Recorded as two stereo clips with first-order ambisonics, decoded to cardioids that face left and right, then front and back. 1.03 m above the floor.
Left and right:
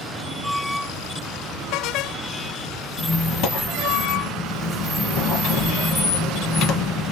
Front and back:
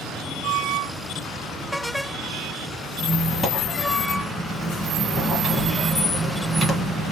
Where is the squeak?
90° left, 1.1 m.